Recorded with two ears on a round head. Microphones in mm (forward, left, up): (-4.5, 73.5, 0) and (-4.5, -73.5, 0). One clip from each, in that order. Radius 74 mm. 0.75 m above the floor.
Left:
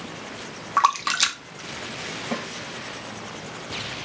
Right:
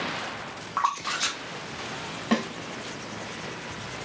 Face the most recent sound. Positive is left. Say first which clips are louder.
# right 6 dB
turn(degrees=-65)  # may be behind; listen again after turning